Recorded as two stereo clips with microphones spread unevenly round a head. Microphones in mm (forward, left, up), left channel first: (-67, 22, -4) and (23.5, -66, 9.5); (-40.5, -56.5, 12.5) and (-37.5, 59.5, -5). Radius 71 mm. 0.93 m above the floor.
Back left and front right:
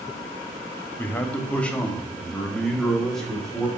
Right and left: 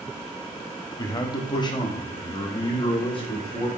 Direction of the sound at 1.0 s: 150° right.